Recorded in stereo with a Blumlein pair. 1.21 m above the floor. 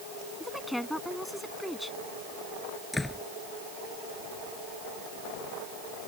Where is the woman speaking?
Straight ahead.